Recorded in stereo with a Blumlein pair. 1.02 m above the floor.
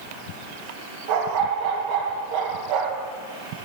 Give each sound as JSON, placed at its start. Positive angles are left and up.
{"t": 1.1, "sound": "a dog barking", "azimuth_deg": -50, "distance_m": 8.0}